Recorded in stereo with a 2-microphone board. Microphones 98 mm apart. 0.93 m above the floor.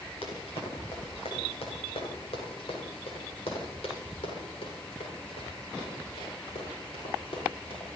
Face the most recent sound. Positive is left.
turn(degrees=60)  # may be behind; listen again after turning